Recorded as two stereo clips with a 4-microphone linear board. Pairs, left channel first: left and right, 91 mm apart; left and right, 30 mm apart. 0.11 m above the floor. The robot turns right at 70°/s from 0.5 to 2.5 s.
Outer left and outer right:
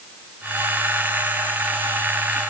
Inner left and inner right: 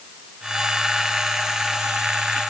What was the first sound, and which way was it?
Only background noise.